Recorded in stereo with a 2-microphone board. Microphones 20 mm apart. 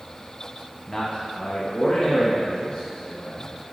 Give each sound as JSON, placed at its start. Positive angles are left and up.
{"t": 0.9, "sound": "a man speaking", "side_deg": 30, "distance_m": 0.8}